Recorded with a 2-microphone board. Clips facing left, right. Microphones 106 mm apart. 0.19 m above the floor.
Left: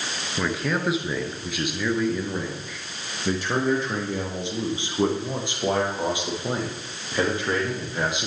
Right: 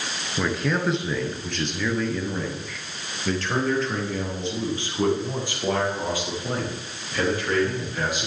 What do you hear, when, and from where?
0.4 s a man speaking: centre (ahead or behind), 3 m; by 8.3 s 20° left (ahead or behind), 6.5 m